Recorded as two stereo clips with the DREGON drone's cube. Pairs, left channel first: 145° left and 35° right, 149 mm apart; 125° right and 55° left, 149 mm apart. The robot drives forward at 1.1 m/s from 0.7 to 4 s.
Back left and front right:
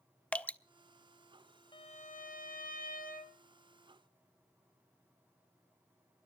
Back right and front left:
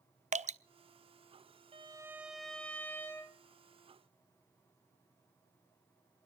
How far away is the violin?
About 0.6 m.